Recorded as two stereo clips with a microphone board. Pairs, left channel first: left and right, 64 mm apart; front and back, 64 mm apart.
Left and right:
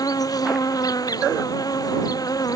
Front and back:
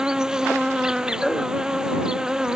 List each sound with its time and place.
0.0 s an insect: 100° left